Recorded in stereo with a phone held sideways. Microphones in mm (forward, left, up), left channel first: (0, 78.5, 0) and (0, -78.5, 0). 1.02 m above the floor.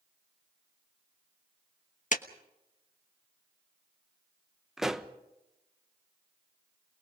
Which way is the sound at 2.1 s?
55° left (ahead or behind).